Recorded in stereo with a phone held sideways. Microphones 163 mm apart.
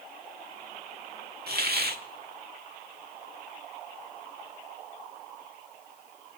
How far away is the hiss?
About 1.5 m.